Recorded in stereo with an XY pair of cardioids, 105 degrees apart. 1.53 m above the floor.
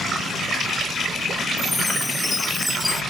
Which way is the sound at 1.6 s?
10° left.